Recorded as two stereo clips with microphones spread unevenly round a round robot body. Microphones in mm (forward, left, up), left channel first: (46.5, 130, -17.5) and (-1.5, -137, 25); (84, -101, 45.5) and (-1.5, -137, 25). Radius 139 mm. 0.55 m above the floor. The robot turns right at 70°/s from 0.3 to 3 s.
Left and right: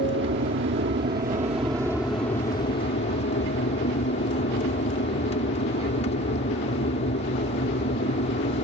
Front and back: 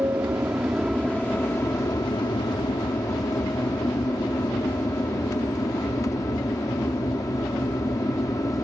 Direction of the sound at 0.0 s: 120° right.